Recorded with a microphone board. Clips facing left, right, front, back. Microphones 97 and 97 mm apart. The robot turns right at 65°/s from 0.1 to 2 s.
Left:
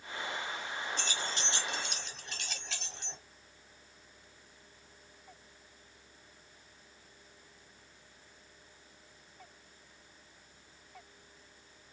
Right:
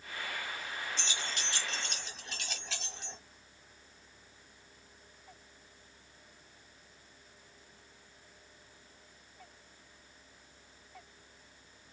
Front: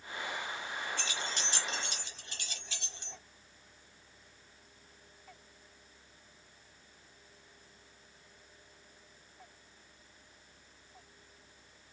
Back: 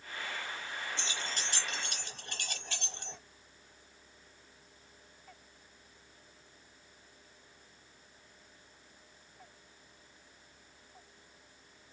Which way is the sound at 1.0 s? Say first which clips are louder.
Left 2 dB, front 1 dB; 115° left.